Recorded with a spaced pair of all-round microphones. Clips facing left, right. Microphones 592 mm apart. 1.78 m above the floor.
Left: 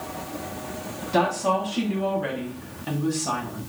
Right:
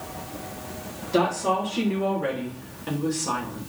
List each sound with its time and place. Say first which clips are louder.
1.1 s a woman speaking: right 1 dB; 20° left (ahead or behind), 3 m; by 3.7 s 5° left (ahead or behind), 1.8 m